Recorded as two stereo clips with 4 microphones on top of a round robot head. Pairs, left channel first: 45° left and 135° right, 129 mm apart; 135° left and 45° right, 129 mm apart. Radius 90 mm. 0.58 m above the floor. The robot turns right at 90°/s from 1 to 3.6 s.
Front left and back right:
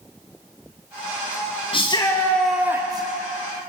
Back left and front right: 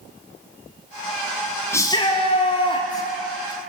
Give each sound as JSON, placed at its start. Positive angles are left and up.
{"t": 1.7, "sound": "a shout", "azimuth_deg": 70, "distance_m": 1.6}